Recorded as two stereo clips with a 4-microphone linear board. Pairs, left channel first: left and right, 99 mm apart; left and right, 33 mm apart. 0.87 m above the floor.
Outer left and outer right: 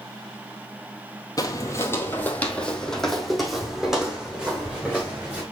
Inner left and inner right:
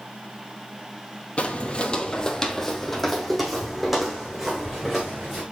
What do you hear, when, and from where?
1.4 s footsteps: 35° left (ahead or behind), 1.0 m; by 5.4 s 10° right (ahead or behind), 3 m